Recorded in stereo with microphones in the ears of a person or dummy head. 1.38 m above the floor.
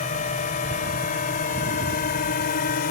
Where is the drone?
35° left (ahead or behind); by 2.9 s 45° left (ahead or behind).